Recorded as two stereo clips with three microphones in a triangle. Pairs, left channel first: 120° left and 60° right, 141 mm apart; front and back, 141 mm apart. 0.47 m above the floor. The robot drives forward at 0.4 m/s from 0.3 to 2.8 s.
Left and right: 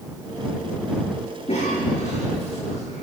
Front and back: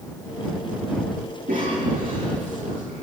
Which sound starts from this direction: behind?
A cough, at 1.5 s.